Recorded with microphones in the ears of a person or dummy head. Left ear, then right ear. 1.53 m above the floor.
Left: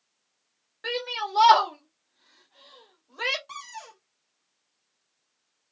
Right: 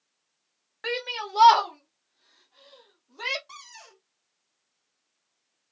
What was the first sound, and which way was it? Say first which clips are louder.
A shout: left 1 dB; 35° right (ahead or behind).